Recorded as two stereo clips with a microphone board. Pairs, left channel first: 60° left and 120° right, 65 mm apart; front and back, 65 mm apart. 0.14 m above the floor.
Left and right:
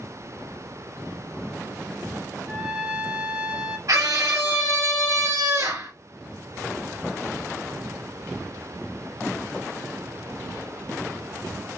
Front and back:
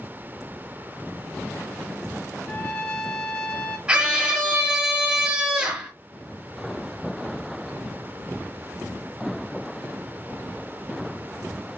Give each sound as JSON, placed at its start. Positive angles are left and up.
{"t": 2.5, "sound": "a trumpet", "azimuth_deg": -55, "distance_m": 1.0}
{"t": 3.9, "sound": "a scream", "azimuth_deg": -105, "distance_m": 2.5}